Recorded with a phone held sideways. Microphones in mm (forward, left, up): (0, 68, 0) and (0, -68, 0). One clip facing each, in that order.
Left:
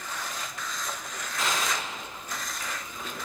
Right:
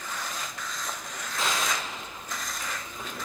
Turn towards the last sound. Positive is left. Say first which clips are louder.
# even
turn(degrees=-35)  # may be behind; listen again after turning